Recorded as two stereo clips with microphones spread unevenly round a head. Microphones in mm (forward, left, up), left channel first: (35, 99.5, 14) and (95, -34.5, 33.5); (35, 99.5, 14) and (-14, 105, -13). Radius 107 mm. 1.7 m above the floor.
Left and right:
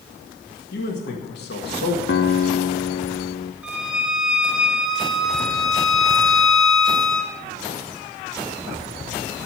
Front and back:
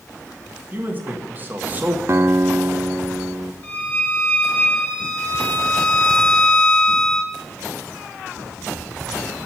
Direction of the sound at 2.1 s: 140° left.